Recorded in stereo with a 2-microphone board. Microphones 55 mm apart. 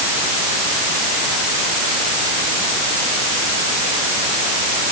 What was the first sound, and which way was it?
Only background noise.